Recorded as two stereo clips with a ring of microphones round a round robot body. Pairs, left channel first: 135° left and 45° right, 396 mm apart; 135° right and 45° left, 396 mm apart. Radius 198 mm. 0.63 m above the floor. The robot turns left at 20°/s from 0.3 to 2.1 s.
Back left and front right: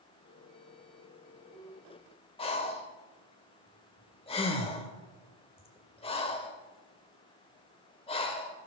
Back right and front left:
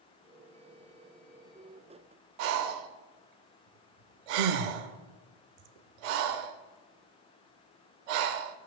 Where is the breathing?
60° left, 0.7 m.